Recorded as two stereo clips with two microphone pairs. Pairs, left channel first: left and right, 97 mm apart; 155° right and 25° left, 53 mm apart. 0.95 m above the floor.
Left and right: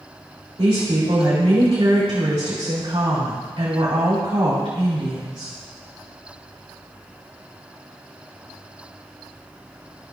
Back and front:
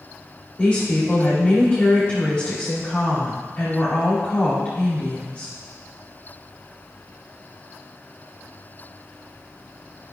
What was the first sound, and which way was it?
A woman speaking, 95° right.